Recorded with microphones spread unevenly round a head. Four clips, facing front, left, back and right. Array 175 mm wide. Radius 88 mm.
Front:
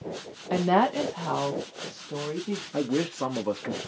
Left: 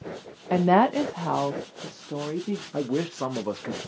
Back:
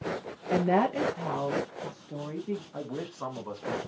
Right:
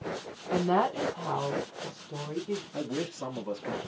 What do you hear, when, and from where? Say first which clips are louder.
0.5 s a woman speaking: left 7 dB, front 2 dB; 85° left, 1.0 m; by 2.6 s 75° left, 2 m
2.7 s a man speaking: left 6 dB, front 9 dB; 40° left, 1.7 m